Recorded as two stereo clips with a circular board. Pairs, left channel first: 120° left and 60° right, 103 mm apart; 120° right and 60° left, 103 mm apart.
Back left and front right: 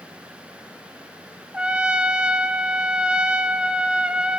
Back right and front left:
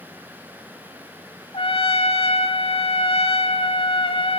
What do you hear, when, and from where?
1.5 s a trumpet: 140° right, 0.8 m